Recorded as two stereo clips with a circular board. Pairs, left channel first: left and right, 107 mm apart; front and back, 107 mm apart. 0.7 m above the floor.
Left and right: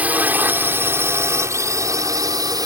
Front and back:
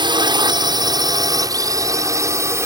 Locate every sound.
0.0 s a drone: 160° right; by 2.7 s 125° right